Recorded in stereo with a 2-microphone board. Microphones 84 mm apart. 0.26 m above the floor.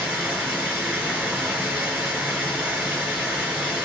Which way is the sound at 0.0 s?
15° right (ahead or behind).